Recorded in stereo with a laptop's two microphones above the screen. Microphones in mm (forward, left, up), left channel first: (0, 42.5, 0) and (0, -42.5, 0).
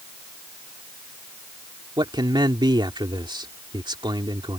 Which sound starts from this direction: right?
A man speaking, at 2.0 s.